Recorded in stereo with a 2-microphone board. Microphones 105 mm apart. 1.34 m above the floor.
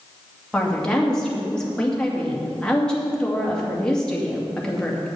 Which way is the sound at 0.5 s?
5° left (ahead or behind).